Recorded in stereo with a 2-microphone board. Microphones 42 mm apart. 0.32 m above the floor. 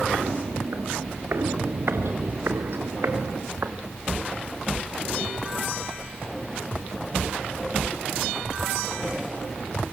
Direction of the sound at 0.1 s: 65° right (ahead or behind).